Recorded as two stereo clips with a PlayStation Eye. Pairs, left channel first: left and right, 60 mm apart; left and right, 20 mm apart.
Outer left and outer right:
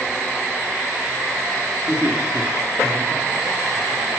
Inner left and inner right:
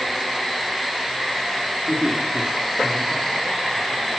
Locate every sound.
1.9 s laughter: 45° right (ahead or behind), 3 m; by 3.8 s 5° right (ahead or behind), 4.5 m